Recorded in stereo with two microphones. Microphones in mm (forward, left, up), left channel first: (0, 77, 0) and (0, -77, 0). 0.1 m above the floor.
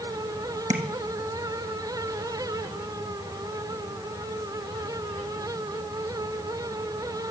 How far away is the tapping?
About 1.6 m.